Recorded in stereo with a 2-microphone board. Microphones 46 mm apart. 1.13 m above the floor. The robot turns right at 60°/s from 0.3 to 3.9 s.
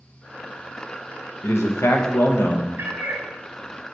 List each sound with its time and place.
1.4 s a man speaking: 60° left, 0.9 m; by 2.7 s 135° left, 0.9 m
2.8 s a cat meowing: 60° right (ahead or behind), 0.7 m; by 3.3 s 40° right (ahead or behind), 0.7 m